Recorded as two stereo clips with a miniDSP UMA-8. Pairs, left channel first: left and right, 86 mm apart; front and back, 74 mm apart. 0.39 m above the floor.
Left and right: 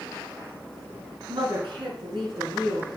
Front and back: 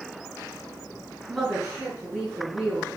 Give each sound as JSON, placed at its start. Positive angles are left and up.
{"t": 1.3, "sound": "a woman speaking", "azimuth_deg": -100, "distance_m": 4.0}